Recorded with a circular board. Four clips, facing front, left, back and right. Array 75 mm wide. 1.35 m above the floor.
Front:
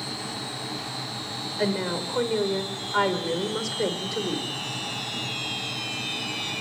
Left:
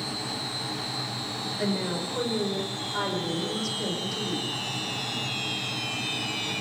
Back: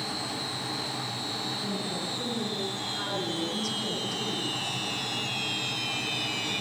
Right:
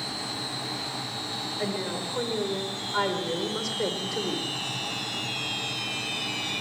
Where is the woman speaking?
10° left, 5.5 m; by 4.7 s 35° right, 5.5 m.